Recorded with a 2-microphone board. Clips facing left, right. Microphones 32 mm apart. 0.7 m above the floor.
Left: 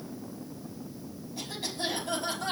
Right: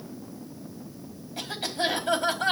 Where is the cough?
70° right (ahead or behind), 5 m.